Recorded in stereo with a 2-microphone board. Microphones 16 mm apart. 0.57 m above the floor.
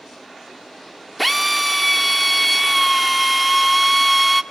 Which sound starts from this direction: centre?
A drill, at 1.2 s.